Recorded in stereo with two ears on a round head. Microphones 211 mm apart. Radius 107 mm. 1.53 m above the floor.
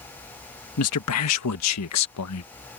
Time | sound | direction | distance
0.8 | a man speaking | 80° left | ?